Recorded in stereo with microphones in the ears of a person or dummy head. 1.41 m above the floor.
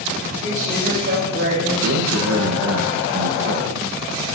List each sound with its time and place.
0.4 s a woman speaking: 45° right (ahead or behind), 3.5 m; by 1.7 s 60° right (ahead or behind), 4 m
1.8 s a man speaking: 80° right, 1.0 m